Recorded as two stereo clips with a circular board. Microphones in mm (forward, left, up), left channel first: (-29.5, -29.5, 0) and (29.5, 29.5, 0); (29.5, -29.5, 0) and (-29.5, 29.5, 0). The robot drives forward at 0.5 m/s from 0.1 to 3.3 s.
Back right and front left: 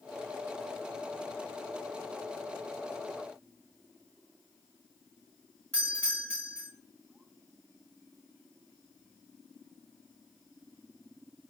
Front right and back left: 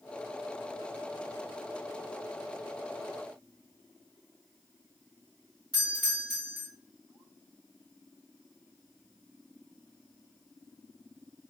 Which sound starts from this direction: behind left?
A doorbell, at 5.7 s.